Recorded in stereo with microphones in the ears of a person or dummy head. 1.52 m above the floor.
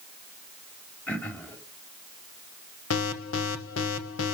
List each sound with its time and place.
1.1 s throat clearing: 5° left (ahead or behind), 3 m
2.9 s an alarm: 85° left, 1.3 m